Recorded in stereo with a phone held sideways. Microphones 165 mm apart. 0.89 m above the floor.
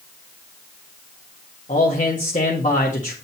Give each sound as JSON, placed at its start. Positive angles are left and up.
{"t": 1.7, "sound": "a man speaking", "side_deg": 50, "distance_m": 1.7}